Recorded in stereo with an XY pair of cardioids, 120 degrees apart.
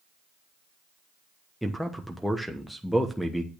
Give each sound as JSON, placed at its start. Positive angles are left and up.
{"t": 1.6, "sound": "a man speaking", "azimuth_deg": 0, "distance_m": 1.0}